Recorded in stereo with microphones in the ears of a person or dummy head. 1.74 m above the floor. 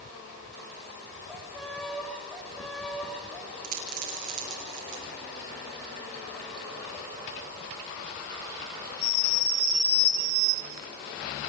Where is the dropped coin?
45° right (ahead or behind), 4 m.